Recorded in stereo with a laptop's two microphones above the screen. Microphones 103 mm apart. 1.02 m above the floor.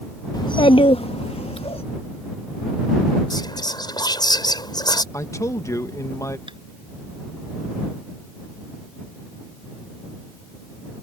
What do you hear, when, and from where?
0.3 s a child speaking: 45° left (ahead or behind); by 1.8 s 70° left (ahead or behind)
3.3 s whispering: 45° left (ahead or behind)
5.1 s a man speaking: 30° left (ahead or behind)
6.5 s tapping: 60° right (ahead or behind)